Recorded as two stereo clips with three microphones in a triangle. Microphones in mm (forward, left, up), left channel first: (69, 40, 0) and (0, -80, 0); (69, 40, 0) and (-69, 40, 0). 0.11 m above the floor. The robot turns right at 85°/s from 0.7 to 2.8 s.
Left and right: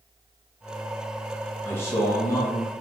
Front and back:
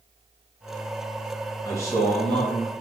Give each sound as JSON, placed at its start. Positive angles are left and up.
{"t": 1.6, "sound": "a man speaking", "azimuth_deg": 5, "distance_m": 1.3}